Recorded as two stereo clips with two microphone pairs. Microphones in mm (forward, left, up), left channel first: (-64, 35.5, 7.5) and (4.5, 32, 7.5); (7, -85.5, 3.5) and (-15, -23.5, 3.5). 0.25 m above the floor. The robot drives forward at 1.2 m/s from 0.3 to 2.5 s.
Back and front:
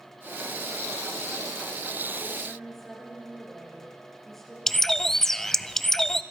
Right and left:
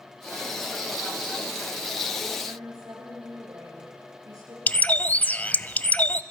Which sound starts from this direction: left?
A woman speaking, at 2.4 s.